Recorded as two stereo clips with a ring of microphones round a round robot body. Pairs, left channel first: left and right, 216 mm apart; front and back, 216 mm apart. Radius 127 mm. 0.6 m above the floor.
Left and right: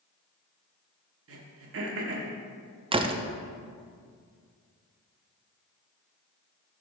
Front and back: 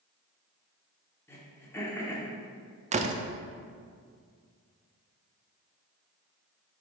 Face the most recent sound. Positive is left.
turn(degrees=-145)